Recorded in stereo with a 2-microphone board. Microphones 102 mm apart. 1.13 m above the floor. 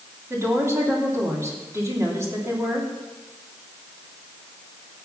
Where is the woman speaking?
25° right (ahead or behind), 3 m.